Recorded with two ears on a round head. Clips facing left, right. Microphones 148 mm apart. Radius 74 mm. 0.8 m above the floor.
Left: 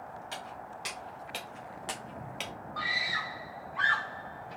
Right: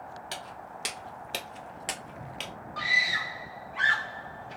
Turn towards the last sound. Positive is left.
turn(degrees=-30)  # may be behind; listen again after turning